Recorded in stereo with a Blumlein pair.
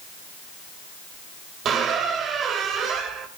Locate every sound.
1.6 s a squeak: 25° right, 2.0 m